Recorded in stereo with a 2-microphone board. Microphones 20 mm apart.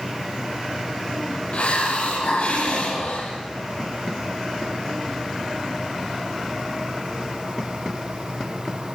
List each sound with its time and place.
1.5 s a hiss: 75° left (ahead or behind), 8 m